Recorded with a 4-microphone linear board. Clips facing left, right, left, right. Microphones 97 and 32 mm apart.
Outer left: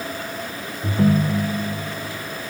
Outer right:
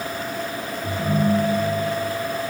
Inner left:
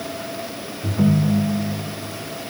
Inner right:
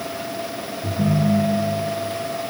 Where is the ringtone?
50° left (ahead or behind), 0.5 m.